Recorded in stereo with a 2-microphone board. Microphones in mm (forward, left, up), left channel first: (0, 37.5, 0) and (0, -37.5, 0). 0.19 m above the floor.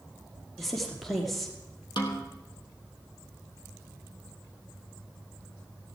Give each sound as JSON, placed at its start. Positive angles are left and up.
{"t": 0.6, "sound": "a woman speaking", "side_deg": 0, "distance_m": 4.5}
{"t": 2.0, "sound": "a snare drum", "side_deg": 80, "distance_m": 3.0}